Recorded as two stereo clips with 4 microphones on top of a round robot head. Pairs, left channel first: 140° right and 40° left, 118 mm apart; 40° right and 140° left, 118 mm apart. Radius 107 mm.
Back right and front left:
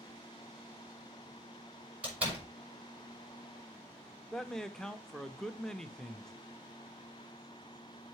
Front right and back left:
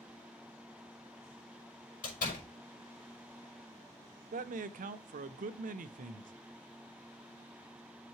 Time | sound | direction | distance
2.0 | a door slam | 40° right | 5 m
4.3 | a man speaking | 135° left | 0.7 m